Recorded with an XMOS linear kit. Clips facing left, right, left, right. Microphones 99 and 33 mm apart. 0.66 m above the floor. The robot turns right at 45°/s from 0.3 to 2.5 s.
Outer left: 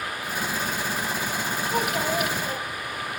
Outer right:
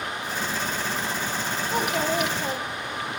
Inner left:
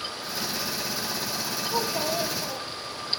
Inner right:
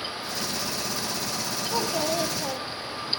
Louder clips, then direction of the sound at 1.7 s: Outer right 1 dB, inner right 1 dB; 135° right.